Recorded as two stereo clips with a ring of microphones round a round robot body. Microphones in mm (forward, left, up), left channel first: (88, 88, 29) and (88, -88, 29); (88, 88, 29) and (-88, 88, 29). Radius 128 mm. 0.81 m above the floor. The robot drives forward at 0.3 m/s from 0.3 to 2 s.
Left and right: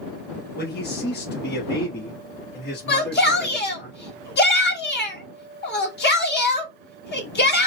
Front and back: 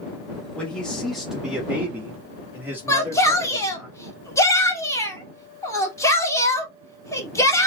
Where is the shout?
75° left, 2 m.